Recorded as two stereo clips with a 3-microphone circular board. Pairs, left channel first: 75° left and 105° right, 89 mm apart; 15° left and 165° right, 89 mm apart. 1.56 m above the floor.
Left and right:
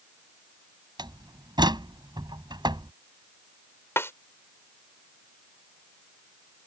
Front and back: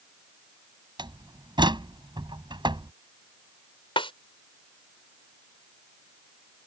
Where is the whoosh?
I don't hear a whoosh.